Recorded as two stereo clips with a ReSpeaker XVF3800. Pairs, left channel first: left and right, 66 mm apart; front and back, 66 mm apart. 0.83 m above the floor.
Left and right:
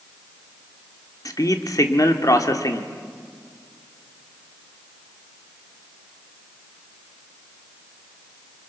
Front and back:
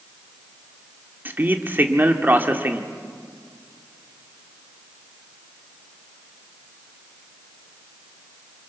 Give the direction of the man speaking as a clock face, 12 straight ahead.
8 o'clock.